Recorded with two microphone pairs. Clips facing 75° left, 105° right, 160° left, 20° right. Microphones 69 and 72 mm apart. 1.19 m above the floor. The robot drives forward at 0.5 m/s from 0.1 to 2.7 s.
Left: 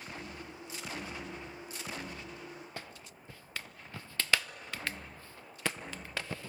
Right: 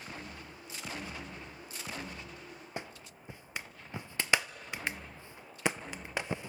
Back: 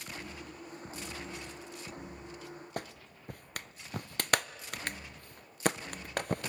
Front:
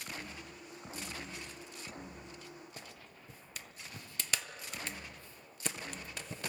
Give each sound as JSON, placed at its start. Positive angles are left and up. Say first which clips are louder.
{"t": 2.8, "sound": "a clap", "louder": "right 3 dB, back 9 dB", "azimuth_deg": -175, "distance_m": 0.6}